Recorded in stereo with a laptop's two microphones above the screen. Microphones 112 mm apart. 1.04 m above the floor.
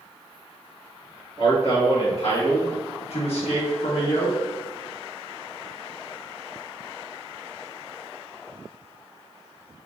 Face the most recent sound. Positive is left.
turn(degrees=35)  # may be behind; listen again after turning